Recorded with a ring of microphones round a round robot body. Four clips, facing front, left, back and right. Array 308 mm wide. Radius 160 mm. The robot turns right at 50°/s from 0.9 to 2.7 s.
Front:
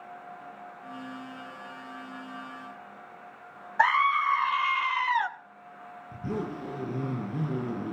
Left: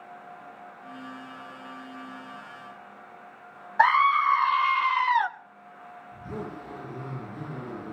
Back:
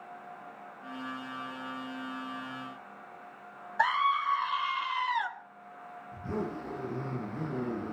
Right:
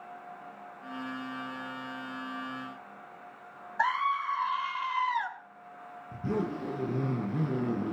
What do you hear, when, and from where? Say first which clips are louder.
3.8 s a scream: left 9 dB, front 4 dB; 70° left, 1.1 m
6.1 s a zipper: right 5 dB, front 2 dB; 55° right, 9 m